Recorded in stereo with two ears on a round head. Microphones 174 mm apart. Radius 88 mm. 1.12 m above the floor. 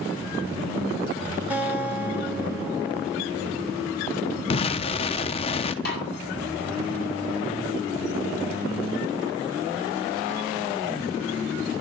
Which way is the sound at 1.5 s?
10° right (ahead or behind).